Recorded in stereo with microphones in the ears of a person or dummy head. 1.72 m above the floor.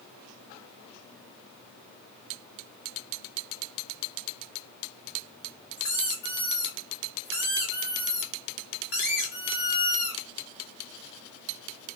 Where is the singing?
No singing in this recording.